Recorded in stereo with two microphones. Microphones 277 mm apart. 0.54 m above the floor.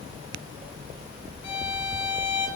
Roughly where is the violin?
Left.